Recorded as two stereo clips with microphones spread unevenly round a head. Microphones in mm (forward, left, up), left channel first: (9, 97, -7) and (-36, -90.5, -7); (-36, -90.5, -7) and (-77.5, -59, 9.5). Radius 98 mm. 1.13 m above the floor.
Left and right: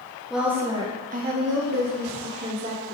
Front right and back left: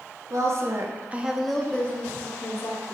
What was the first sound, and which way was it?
A woman speaking, 170° left.